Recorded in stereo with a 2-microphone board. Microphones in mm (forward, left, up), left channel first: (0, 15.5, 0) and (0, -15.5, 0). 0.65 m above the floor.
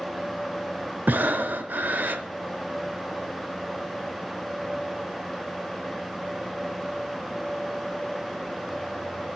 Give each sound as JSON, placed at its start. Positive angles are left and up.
{"t": 1.1, "sound": "breathing", "side_deg": -75, "distance_m": 0.7}